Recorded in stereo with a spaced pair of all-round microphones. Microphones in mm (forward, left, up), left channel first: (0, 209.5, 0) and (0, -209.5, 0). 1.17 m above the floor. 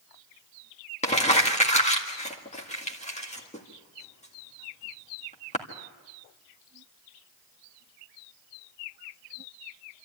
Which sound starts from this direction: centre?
Crumpling, at 1.0 s.